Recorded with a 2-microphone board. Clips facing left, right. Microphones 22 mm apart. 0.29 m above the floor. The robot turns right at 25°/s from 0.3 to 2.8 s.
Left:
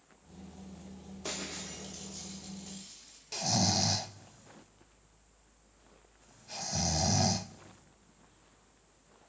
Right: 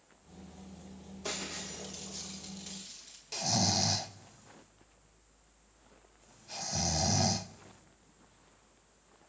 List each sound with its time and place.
1.2 s breaking glass: 175° left, 9.5 m; by 3.2 s 150° right, 9.5 m
3.3 s snoring: centre (ahead or behind), 0.5 m